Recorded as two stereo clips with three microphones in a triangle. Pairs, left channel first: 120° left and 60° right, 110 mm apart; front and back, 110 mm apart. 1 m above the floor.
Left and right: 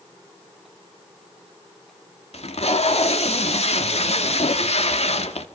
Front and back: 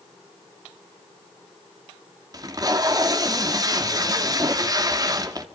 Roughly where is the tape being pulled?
Behind left.